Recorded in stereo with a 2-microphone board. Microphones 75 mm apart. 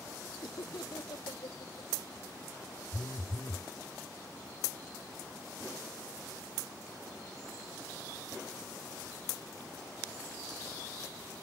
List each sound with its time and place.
0.4 s laughter: 80° left
2.9 s a phone buzzing: 60° left (ahead or behind)